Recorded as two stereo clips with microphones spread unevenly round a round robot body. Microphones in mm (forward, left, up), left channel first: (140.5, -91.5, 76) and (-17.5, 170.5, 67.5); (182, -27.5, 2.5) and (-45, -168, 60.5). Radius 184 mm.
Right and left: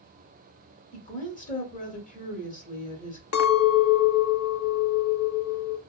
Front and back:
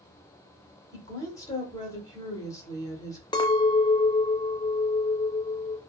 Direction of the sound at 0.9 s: 15° right.